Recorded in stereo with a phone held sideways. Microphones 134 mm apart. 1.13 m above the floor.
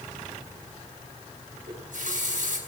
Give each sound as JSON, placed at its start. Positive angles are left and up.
{"t": 1.7, "sound": "a running tap", "side_deg": -75, "distance_m": 5.5}